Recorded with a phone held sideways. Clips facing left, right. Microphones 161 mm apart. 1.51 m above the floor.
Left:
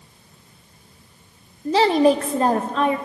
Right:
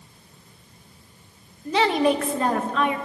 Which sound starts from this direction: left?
A woman speaking, at 1.6 s.